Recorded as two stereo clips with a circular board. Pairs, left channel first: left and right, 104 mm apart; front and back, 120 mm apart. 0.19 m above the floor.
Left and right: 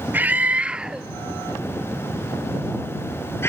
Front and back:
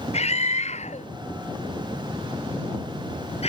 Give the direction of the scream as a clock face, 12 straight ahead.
1 o'clock.